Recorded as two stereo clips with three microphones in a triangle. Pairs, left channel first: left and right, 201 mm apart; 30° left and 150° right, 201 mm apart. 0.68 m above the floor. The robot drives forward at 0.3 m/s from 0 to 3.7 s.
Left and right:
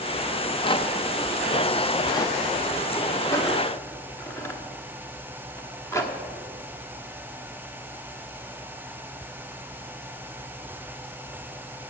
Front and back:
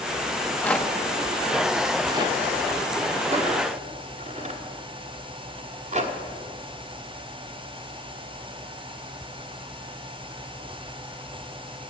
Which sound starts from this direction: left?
A rattle, at 0.4 s.